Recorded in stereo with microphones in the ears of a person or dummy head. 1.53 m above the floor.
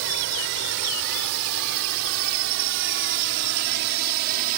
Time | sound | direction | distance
0.0 | a drone | 75° right (ahead or behind) | ?